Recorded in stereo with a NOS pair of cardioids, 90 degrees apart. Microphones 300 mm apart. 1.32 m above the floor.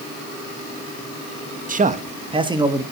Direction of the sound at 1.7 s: 30° right.